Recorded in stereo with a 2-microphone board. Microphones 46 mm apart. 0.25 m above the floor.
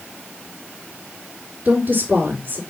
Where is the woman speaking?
35° right (ahead or behind), 3.5 m.